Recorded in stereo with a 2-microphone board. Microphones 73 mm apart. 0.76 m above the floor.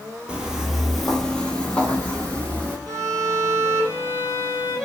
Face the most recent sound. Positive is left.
turn(degrees=30)  # may be behind; listen again after turning